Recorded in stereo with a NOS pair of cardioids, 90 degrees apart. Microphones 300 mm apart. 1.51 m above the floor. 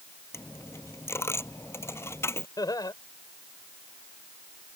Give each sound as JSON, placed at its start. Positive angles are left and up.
{"t": 0.3, "sound": "a dropped coin", "azimuth_deg": 10}
{"t": 2.6, "sound": "laughter", "azimuth_deg": 10}